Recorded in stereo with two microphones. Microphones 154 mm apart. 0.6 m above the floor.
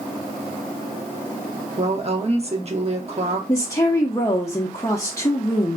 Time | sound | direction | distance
1.8 | a woman speaking | 45° right (ahead or behind) | 0.7 m
3.5 | a woman speaking | 20° left (ahead or behind) | 0.6 m